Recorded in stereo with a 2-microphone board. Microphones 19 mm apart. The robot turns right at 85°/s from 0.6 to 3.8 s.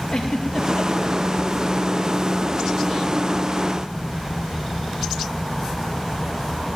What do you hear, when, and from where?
0.1 s a giggle: 55° left (ahead or behind), 5.5 m; by 1.2 s 80° left, 5.5 m